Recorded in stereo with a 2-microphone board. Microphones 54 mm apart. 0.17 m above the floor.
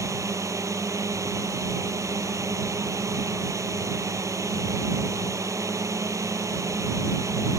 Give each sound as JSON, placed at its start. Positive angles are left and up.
{"t": 0.0, "sound": "a drone", "side_deg": -70}